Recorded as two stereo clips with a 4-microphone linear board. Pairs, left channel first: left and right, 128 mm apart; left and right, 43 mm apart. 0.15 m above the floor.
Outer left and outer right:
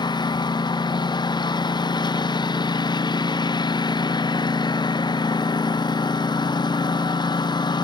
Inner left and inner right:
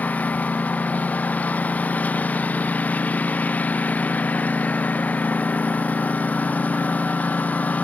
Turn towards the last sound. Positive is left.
turn(degrees=35)  # may be behind; listen again after turning